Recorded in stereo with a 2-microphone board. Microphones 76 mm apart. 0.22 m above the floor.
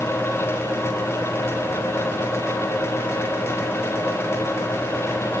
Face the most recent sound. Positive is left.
No sound to turn to.